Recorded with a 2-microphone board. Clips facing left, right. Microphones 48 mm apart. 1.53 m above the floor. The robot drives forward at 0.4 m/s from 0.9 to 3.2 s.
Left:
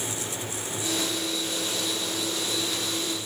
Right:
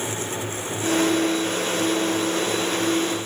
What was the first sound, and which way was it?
Only background noise.